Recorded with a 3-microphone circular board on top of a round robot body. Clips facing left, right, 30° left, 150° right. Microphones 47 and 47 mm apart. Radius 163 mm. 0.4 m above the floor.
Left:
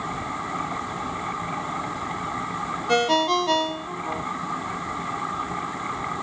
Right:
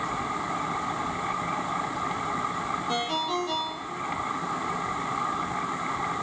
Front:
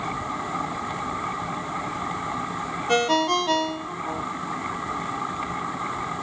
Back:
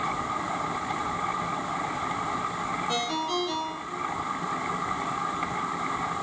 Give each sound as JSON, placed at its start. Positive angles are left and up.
{"t": 2.9, "sound": "a ringtone", "azimuth_deg": 65, "distance_m": 0.7}